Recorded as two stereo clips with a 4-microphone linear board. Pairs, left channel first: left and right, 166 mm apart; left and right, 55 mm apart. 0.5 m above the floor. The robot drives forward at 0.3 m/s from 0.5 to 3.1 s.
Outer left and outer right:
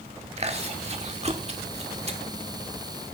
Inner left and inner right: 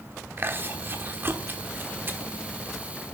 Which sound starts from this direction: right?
Chewing, at 0.4 s.